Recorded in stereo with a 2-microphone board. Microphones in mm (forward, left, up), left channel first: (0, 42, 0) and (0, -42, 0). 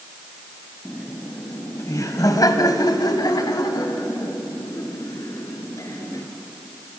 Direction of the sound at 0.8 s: 15° left (ahead or behind).